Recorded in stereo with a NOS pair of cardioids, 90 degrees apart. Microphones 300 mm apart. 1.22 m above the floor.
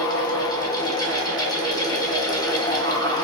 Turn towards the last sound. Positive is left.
turn(degrees=15)